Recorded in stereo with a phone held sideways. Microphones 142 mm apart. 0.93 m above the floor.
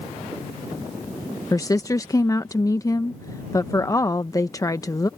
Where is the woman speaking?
25° left (ahead or behind).